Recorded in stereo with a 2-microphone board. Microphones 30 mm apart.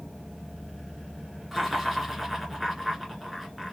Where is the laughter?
5° right (ahead or behind), 1.7 m.